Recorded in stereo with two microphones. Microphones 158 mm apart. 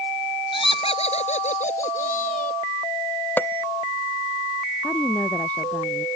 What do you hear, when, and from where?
0.5 s laughter: 30° left (ahead or behind); by 2.6 s 55° left (ahead or behind)
3.4 s a bell: 10° left (ahead or behind)
4.8 s a woman speaking: 10° left (ahead or behind)